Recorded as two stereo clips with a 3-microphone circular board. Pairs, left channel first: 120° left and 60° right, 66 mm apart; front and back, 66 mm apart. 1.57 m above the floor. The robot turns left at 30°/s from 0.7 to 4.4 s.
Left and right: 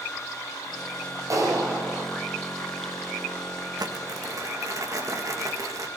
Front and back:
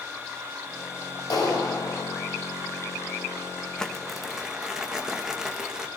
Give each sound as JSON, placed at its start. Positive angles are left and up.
{"t": 1.3, "sound": "a clap", "azimuth_deg": -20, "distance_m": 6.0}
{"t": 3.8, "sound": "crumpling", "azimuth_deg": -80, "distance_m": 2.0}